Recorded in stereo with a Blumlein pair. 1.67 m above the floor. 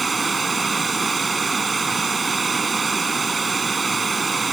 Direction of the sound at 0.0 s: 15° right.